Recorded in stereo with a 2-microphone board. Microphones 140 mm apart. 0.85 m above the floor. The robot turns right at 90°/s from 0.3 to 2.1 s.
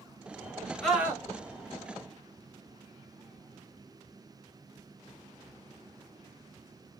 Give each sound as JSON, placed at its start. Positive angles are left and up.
{"t": 0.8, "sound": "a scream", "azimuth_deg": 175, "distance_m": 1.2}